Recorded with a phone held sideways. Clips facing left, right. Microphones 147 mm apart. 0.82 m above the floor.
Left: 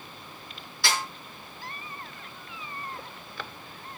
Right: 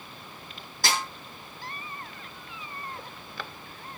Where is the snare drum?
50° right (ahead or behind), 5 m.